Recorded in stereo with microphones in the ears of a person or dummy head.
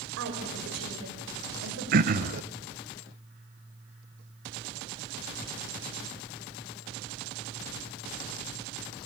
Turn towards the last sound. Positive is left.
turn(degrees=-50)  # may be behind; listen again after turning